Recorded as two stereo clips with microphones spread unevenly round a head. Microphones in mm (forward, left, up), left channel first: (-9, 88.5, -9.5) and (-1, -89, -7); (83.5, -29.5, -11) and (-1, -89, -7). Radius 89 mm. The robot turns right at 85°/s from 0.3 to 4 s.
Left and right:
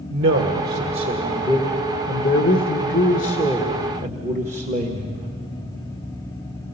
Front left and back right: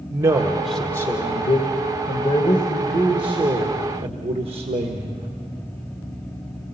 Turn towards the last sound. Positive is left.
turn(degrees=-135)